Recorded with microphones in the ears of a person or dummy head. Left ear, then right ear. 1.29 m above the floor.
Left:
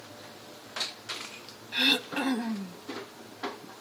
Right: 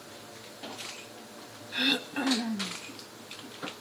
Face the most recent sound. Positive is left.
turn(degrees=10)  # may be behind; listen again after turning